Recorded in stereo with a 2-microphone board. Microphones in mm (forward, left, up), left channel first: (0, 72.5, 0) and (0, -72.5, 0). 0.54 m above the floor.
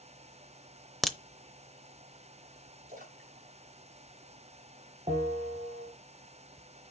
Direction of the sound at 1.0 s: Centre (ahead or behind).